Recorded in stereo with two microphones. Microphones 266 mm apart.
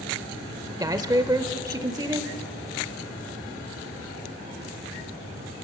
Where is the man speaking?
15° right (ahead or behind), 0.9 m.